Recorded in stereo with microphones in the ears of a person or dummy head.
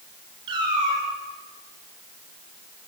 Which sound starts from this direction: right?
A cat meowing, at 0.5 s.